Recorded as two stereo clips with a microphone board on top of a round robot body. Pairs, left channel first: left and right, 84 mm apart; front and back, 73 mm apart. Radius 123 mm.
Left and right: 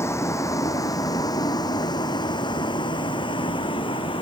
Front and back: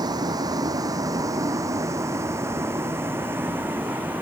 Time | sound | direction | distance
0.0 | a vehicle | 150° left | ?